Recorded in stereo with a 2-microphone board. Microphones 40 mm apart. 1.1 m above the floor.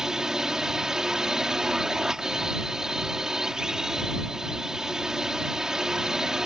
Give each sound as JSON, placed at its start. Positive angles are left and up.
{"t": 0.0, "sound": "a drone", "side_deg": -15}